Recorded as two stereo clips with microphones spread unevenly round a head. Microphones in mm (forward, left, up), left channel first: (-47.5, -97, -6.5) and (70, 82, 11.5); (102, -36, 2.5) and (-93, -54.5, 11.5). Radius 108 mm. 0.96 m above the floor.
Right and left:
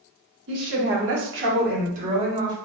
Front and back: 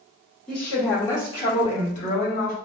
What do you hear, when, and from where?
0.5 s a woman speaking: 90° left, 1.6 m; by 2.5 s 15° right, 1.1 m